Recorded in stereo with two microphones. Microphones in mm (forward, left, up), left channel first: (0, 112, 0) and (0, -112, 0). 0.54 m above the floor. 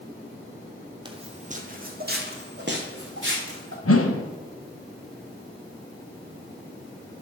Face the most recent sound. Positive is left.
turn(degrees=80)